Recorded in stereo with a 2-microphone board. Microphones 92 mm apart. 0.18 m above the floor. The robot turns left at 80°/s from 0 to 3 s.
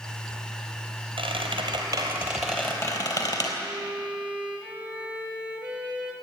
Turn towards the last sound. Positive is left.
turn(degrees=-15)  # may be behind; listen again after turning